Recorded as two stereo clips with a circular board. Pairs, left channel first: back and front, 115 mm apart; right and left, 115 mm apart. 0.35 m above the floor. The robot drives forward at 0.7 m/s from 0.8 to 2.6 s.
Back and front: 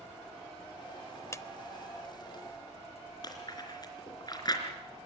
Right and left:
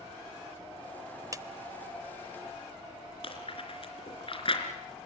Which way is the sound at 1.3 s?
130° left.